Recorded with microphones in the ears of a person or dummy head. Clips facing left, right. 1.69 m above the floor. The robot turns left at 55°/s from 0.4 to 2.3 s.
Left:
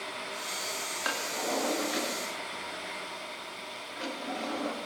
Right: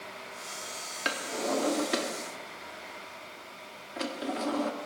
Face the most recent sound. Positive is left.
turn(degrees=-55)  # may be behind; listen again after turning